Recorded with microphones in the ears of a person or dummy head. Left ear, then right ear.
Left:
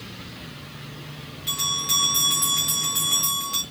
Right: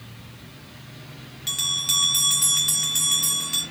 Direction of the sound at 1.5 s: 15° right (ahead or behind).